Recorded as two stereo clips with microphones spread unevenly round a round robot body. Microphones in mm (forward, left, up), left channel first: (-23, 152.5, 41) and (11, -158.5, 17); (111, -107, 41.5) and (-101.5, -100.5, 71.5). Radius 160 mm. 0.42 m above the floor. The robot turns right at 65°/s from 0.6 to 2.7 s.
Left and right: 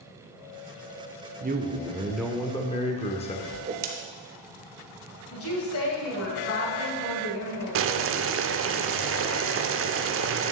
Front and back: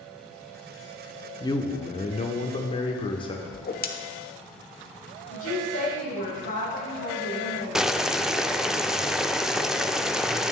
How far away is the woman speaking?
About 2 m.